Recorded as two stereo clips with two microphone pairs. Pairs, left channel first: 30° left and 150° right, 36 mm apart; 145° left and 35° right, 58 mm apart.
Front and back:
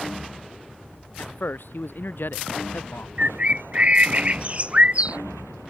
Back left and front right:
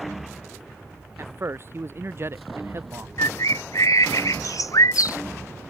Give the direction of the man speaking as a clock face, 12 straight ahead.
12 o'clock.